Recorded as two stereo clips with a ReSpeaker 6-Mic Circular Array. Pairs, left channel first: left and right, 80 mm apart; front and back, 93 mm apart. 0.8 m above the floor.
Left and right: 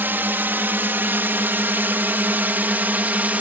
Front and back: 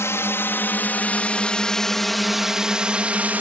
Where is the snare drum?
I don't hear a snare drum.